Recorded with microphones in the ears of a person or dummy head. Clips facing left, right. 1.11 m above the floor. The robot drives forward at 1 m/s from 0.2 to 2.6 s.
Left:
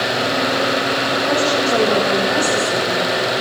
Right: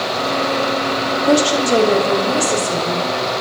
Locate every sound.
1.3 s a woman speaking: 55° right (ahead or behind), 2.5 m; by 3.1 s 35° right (ahead or behind), 3.5 m